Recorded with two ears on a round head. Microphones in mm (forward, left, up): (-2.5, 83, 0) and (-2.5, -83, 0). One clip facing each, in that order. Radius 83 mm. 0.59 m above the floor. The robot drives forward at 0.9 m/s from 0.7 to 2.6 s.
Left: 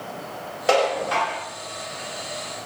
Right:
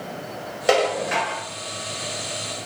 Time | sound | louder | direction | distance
0.7 | dishes clattering | even | 20° right (ahead or behind) | 2.0 m